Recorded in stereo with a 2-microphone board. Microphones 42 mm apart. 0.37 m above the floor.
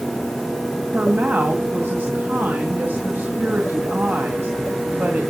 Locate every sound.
0.9 s a woman speaking: 60° right (ahead or behind), 2 m